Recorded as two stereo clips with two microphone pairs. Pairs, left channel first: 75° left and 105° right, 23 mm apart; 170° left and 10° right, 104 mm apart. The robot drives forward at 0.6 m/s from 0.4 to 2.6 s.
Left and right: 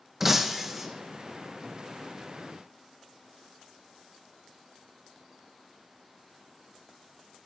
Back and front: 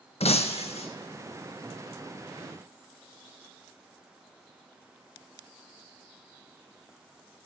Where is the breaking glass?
175° left, 0.8 m; by 0.9 s straight behind, 1.1 m.